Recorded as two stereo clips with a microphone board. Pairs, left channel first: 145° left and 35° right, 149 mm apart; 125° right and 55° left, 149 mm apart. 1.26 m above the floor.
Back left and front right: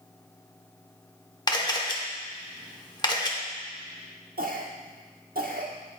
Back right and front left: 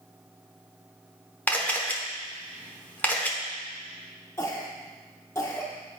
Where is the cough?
50° right, 0.6 m.